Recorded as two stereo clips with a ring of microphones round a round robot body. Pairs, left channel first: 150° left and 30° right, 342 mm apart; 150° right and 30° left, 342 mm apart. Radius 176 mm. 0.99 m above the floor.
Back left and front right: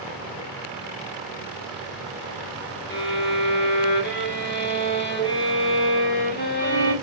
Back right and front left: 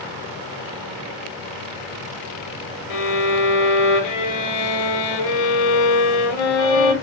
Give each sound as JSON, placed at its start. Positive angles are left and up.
{"t": 2.9, "sound": "a violin", "azimuth_deg": -150, "distance_m": 1.2}